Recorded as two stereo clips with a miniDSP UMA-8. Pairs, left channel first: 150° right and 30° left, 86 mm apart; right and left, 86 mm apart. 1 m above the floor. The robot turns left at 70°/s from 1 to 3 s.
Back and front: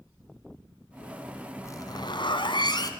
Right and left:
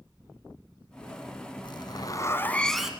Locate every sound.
1.6 s a zipper: 100° right, 1.7 m; by 2.9 s 175° left, 1.7 m